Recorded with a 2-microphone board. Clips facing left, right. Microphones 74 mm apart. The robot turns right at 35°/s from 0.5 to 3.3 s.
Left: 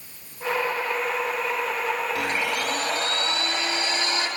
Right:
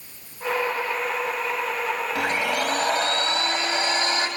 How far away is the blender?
About 1.1 m.